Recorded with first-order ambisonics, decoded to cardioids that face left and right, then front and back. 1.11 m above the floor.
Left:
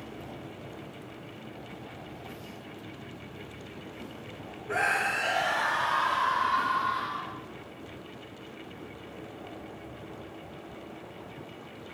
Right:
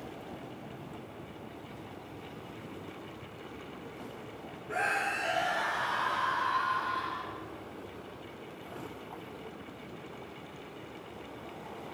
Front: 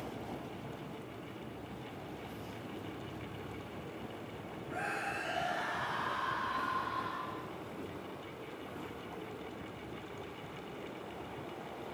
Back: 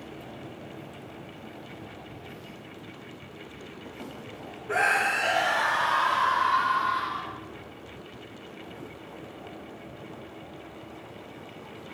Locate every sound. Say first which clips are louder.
4.7 s a scream: left 4 dB, back 14 dB; 155° left, 1.5 m; by 7.4 s 150° left, 3.5 m